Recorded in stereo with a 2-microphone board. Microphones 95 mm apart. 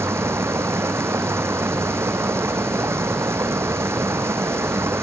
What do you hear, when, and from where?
0.0 s running water: 25° right (ahead or behind)